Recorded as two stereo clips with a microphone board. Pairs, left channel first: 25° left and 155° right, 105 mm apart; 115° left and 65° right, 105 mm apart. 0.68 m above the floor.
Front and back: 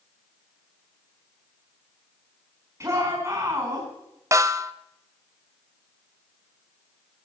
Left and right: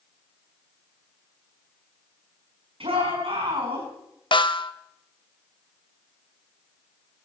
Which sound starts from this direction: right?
A shout, at 2.8 s.